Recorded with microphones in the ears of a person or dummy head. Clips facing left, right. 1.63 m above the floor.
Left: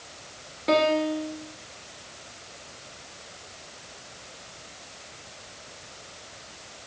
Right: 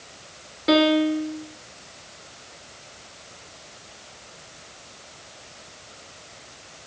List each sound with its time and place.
0.7 s a piano: 15° right (ahead or behind), 0.9 m